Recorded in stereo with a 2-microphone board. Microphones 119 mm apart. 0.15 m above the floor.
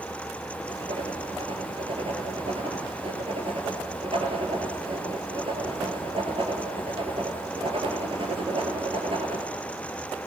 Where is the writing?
50° right (ahead or behind), 3 m.